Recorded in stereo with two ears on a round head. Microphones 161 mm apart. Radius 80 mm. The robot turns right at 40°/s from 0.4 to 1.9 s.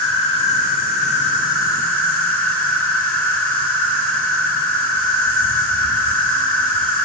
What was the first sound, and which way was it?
An insect, 35° left.